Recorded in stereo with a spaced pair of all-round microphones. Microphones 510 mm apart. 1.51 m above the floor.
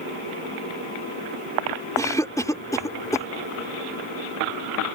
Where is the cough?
5° left (ahead or behind).